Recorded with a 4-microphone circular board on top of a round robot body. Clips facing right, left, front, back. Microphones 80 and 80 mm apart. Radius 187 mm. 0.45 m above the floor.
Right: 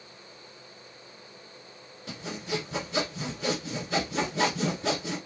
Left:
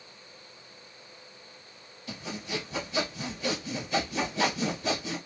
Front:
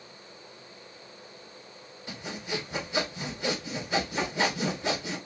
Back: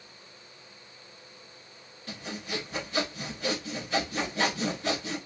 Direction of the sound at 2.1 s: 75° right.